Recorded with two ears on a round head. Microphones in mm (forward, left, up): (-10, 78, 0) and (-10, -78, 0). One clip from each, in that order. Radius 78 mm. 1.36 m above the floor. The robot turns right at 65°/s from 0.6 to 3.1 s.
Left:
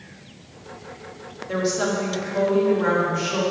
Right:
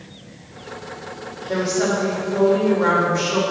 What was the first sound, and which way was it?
A woman speaking, 95° left.